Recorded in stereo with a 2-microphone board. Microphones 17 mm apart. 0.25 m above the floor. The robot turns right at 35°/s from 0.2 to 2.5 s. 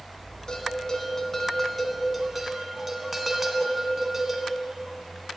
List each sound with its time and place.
0.5 s a bell: 130° left, 1.3 m; by 4.5 s 160° right, 1.3 m